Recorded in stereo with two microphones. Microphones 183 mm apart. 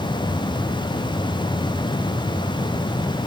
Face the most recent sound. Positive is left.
No sound to turn to.